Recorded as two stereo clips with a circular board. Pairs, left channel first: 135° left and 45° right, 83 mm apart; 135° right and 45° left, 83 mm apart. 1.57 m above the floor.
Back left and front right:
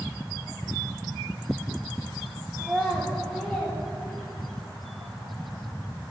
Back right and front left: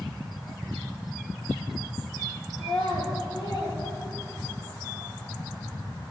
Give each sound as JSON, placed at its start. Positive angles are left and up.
{"t": 2.6, "sound": "a child speaking", "azimuth_deg": -130, "distance_m": 3.0}